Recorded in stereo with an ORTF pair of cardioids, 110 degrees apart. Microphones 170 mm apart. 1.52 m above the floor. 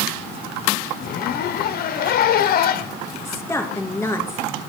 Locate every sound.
1.0 s a zipper: 55° left, 0.8 m
3.2 s a woman speaking: 15° left, 2.5 m